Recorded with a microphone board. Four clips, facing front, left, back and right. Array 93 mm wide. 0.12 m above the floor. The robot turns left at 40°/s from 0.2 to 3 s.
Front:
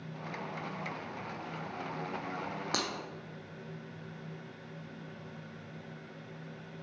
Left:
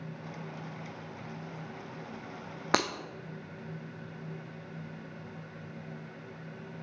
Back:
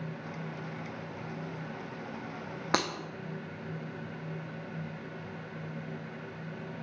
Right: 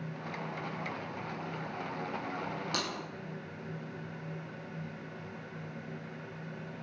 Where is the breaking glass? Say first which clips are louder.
Left 11 dB, back 7 dB; 120° left, 0.8 m; by 2.9 s 115° left, 0.8 m.